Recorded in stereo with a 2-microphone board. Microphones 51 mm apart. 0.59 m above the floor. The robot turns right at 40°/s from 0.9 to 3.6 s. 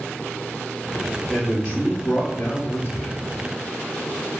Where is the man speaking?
25° left, 1.2 m; by 3.1 s 100° left, 1.2 m.